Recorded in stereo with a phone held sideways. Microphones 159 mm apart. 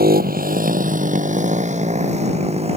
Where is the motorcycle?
70° right (ahead or behind); by 2.8 s 40° right (ahead or behind).